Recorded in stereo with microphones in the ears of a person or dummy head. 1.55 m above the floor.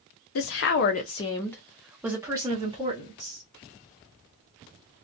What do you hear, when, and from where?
0.3 s a woman speaking: 60° left (ahead or behind), 0.7 m; by 3.4 s 30° right (ahead or behind), 1.4 m